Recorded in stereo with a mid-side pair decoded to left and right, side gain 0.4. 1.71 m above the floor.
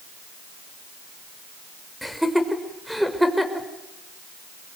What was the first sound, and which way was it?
Laughter, straight ahead.